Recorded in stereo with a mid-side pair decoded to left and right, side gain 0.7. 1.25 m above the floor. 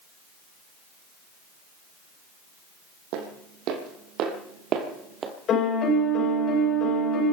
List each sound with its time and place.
3.1 s footsteps: 70° right, 4 m; by 5.3 s 35° right, 2.5 m
5.5 s a piano: 45° left, 5.5 m